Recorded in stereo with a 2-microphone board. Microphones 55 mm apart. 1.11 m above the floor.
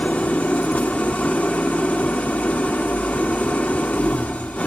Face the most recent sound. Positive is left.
turn(degrees=25)  # may be behind; listen again after turning